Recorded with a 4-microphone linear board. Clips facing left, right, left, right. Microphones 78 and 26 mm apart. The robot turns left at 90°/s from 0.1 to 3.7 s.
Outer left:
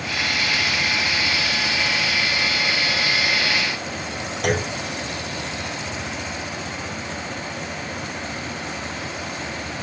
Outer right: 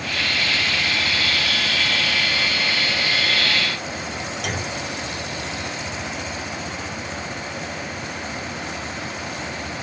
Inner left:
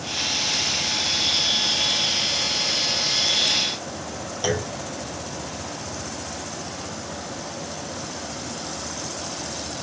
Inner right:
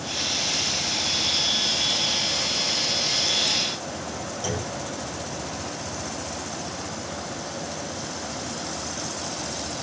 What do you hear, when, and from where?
4.4 s a clunk: 50° left (ahead or behind), 0.9 m